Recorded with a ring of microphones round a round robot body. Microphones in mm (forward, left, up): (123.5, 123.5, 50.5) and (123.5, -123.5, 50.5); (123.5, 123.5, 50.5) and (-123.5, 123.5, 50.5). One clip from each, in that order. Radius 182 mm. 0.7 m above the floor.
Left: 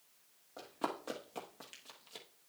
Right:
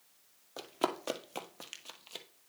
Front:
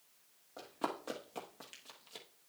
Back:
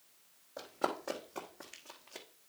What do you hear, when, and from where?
0.6 s running footsteps: 80° right, 1.5 m; by 2.3 s 40° right, 1.6 m